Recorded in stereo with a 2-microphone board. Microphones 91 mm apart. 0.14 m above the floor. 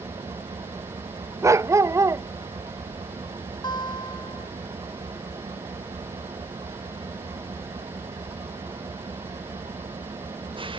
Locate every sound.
0.0 s an engine running: 70° right (ahead or behind)
1.4 s a dog barking: 35° right (ahead or behind)
3.6 s a guitar: 55° left (ahead or behind)